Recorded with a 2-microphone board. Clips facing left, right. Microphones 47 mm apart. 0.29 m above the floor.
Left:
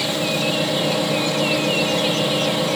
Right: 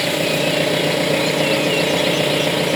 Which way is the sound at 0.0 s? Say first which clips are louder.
Right 3 dB; 65° right (ahead or behind).